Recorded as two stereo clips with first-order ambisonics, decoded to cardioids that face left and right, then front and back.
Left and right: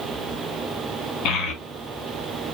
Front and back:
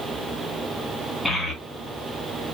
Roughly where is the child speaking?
Left.